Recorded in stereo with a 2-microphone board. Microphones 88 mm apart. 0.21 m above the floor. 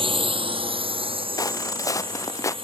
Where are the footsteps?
40° left (ahead or behind); by 2.5 s 35° left (ahead or behind).